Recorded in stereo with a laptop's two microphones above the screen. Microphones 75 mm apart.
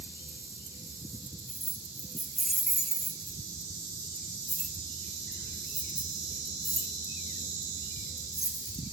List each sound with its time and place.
1.5 s keys jangling: 5° left (ahead or behind), 4.5 m; by 8.8 s 60° right (ahead or behind), 3.5 m